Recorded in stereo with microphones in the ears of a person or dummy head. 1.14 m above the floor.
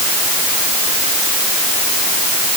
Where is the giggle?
No giggle in this recording.